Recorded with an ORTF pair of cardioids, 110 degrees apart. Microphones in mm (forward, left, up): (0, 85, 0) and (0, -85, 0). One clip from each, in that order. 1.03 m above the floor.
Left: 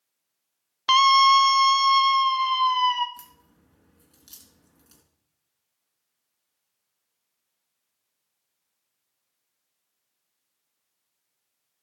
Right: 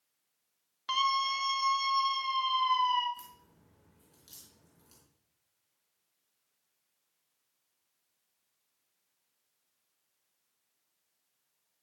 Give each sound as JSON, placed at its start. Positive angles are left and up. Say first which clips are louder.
{"t": 0.9, "sound": "a scream", "louder": "left 14 dB", "azimuth_deg": 65, "distance_m": 0.6}
{"t": 3.2, "sound": "a crack", "louder": "left 1 dB", "azimuth_deg": 35, "distance_m": 4.0}